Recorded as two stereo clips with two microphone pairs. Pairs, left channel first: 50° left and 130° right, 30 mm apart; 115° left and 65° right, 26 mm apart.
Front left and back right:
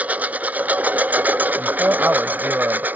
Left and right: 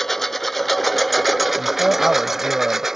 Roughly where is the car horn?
I don't hear a car horn.